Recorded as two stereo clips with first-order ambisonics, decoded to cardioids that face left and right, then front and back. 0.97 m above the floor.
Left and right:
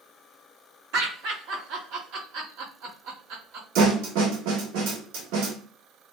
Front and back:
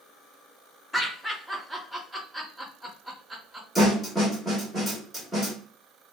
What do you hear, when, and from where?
0.9 s laughter: 85° right, 1.7 m
3.8 s a snare drum: 90° right, 1.3 m